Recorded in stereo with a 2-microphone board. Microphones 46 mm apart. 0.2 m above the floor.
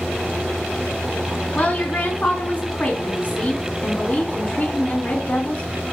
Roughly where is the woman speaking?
Left.